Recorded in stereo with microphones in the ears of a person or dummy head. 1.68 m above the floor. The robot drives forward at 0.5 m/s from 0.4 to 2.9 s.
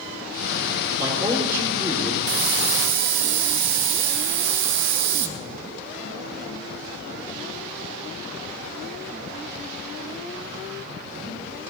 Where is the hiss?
65° right (ahead or behind), 1.7 m; by 5.3 s 60° right (ahead or behind), 1.8 m.